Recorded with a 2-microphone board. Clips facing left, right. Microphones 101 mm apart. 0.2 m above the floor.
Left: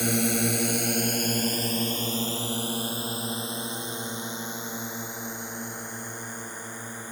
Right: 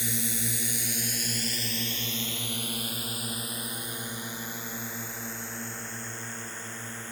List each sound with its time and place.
0.0 s a drone: 65° left (ahead or behind); by 7.1 s 15° left (ahead or behind)